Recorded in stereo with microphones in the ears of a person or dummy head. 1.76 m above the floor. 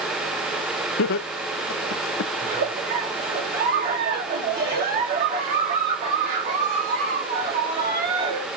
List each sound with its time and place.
1.0 s laughter: 60° left (ahead or behind), 0.8 m
2.4 s a giggle: 60° right (ahead or behind), 2.5 m